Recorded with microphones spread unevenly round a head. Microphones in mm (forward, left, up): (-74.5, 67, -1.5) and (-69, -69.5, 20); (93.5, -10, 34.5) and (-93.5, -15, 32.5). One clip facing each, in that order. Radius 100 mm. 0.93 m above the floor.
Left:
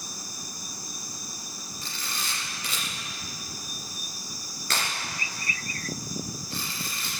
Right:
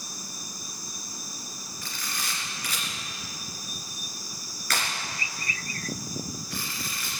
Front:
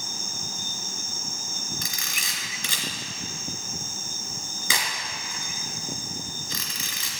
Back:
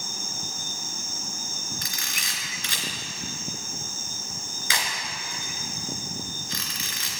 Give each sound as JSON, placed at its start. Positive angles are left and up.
{"t": 1.8, "sound": "a camera shutter", "azimuth_deg": 15, "distance_m": 2.5}